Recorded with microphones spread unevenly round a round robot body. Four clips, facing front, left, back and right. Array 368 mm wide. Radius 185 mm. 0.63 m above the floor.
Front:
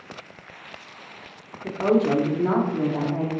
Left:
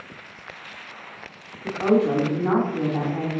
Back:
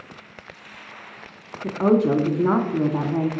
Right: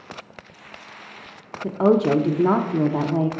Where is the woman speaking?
120° right, 0.9 m.